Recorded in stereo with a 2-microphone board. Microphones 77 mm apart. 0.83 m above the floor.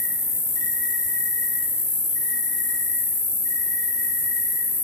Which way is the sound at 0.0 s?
70° left (ahead or behind).